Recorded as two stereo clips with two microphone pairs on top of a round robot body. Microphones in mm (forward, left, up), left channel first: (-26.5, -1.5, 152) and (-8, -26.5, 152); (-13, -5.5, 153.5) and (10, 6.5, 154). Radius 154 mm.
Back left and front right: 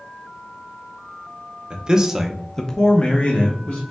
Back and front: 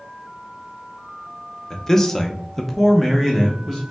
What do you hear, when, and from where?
1.7 s a man speaking: 90° right, 0.7 m; by 3.9 s 115° left, 1.0 m